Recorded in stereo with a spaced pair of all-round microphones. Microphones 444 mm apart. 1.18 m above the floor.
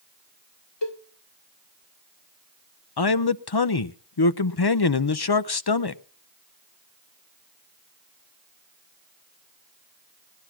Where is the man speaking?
60° left (ahead or behind), 0.6 m.